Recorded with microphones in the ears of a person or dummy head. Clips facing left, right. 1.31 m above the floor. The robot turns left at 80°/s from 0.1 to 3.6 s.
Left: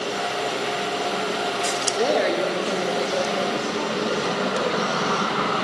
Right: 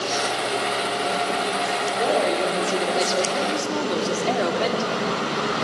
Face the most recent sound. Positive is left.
turn(degrees=-95)